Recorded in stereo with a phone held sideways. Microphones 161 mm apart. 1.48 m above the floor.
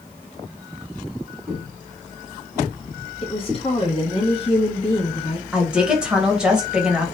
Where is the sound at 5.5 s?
5° right (ahead or behind), 1.2 m.